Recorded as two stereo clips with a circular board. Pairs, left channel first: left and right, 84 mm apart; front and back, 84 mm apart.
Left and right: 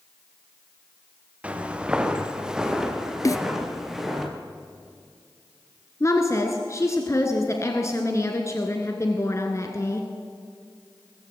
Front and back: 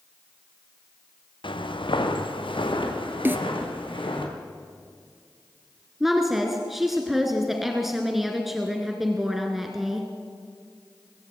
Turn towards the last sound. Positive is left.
turn(degrees=95)